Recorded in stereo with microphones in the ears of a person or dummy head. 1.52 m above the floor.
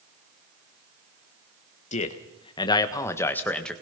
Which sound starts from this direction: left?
A man speaking, at 1.9 s.